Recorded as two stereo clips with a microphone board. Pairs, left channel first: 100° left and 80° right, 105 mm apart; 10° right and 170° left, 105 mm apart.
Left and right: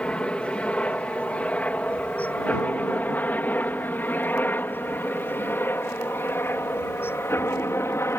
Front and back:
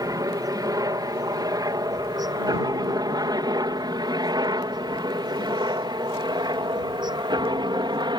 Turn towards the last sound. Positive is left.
turn(degrees=155)